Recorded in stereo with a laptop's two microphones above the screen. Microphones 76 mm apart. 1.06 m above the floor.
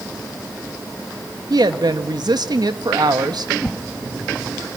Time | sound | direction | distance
1.5 | a woman speaking | 65° right (ahead or behind) | 1.6 m
3.6 | a whoosh | 5° left (ahead or behind) | 1.7 m